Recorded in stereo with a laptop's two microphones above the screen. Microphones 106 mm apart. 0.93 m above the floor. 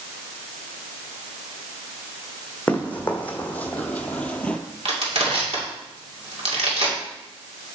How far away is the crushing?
About 2.5 m.